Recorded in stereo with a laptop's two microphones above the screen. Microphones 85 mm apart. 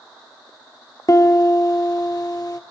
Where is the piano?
50° left (ahead or behind), 0.7 m.